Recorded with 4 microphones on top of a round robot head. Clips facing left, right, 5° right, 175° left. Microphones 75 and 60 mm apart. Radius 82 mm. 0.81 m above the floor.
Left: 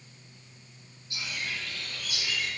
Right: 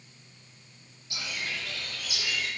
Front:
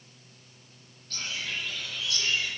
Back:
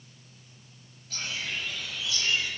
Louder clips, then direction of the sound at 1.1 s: Even, back 1 dB; 100° right.